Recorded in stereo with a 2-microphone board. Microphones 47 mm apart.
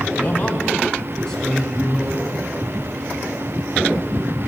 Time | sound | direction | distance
0.2 | a man speaking | 30° left (ahead or behind) | 3.5 m